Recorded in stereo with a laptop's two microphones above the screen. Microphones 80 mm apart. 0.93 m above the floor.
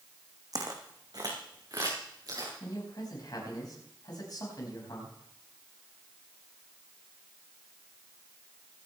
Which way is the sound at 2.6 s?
55° left (ahead or behind).